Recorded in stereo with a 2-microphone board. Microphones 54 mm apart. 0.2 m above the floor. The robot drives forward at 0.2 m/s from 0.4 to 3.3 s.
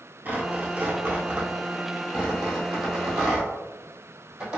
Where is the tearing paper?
35° right (ahead or behind), 0.6 m; by 4.6 s 15° right (ahead or behind), 1.1 m.